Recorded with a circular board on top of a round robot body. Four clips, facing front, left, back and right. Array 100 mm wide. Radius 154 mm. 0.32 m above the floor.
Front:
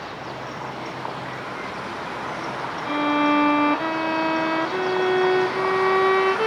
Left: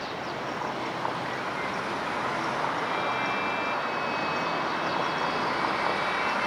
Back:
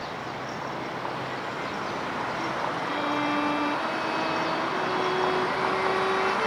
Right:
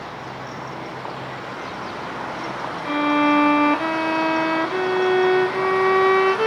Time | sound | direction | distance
2.9 | a violin | 65° right | ?